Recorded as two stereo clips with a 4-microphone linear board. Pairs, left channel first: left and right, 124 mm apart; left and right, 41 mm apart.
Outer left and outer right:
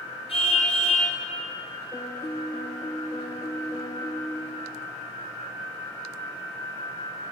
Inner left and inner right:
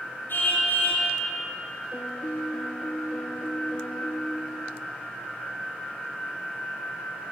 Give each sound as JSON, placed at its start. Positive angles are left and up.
{"t": 0.3, "sound": "a car horn", "side_deg": 55, "distance_m": 8.0}
{"t": 1.9, "sound": "a piano", "side_deg": 25, "distance_m": 1.8}